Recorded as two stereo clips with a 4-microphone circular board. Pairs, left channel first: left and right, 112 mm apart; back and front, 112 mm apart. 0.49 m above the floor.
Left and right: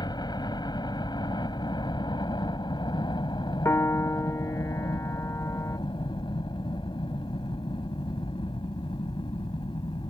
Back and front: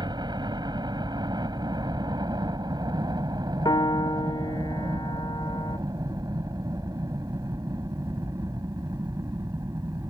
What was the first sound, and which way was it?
A helicopter, 45° left.